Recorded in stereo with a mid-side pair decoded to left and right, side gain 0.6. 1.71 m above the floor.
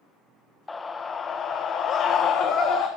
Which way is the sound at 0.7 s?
20° left.